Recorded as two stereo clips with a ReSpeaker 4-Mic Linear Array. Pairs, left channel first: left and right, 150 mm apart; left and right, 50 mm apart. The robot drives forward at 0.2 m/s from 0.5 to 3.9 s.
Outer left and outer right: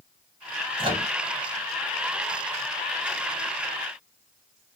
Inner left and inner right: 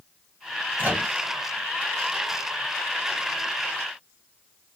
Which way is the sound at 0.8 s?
35° right (ahead or behind).